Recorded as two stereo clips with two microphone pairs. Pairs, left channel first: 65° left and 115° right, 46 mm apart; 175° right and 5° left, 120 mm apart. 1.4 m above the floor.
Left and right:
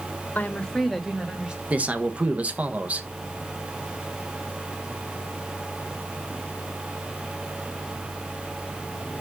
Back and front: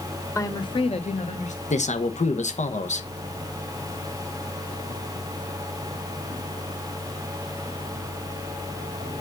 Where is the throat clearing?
No throat clearing in this recording.